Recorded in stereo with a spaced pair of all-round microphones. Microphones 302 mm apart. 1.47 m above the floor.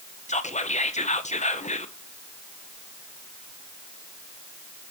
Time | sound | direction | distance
0.3 | whispering | 25° left (ahead or behind) | 0.7 m